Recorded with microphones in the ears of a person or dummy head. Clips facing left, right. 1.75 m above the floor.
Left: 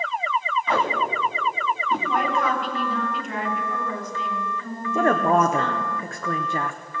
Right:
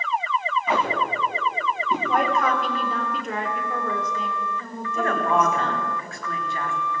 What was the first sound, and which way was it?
Tape being pulled, 10° right (ahead or behind).